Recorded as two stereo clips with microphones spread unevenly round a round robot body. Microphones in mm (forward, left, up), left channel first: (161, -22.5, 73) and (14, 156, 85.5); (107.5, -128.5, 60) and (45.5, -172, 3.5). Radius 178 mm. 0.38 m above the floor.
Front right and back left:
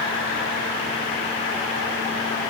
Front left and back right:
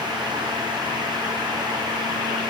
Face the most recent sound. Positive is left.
No sound to turn to.